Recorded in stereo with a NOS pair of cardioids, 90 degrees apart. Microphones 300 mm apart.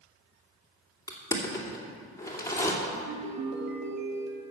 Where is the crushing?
10° left, 2.5 m.